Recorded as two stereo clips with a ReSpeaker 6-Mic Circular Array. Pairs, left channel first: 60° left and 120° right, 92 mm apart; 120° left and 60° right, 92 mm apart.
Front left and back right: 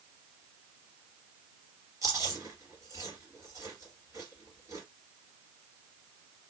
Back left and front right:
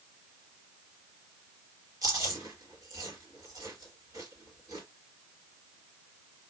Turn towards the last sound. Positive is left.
turn(degrees=-80)